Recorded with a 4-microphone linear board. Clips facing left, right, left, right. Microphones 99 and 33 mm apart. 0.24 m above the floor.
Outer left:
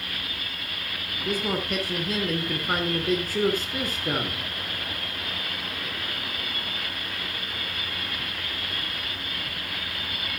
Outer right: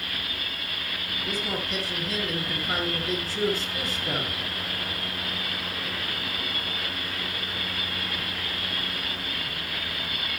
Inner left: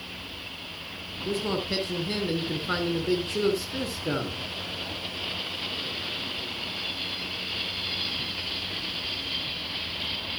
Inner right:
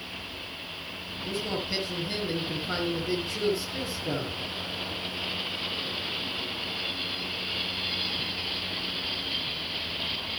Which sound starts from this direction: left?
A man speaking, at 1.2 s.